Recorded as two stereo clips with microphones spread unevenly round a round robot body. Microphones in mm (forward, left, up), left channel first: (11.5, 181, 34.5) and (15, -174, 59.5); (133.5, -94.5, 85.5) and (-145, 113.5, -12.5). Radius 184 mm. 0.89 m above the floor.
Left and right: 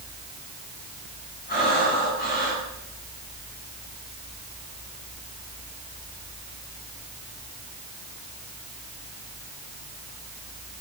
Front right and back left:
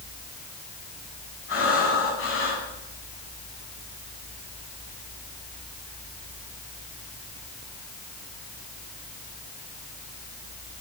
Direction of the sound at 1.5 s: 25° left.